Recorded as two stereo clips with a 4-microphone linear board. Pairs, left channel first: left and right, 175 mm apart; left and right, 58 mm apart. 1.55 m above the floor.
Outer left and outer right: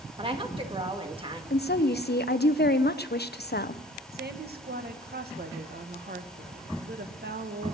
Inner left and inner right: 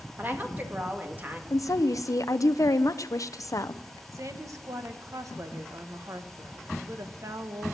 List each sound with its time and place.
0.2 s a woman speaking: 30° right (ahead or behind), 2.0 m
1.5 s a woman speaking: 70° left (ahead or behind), 0.7 m
4.1 s a woman speaking: 65° right (ahead or behind), 1.4 m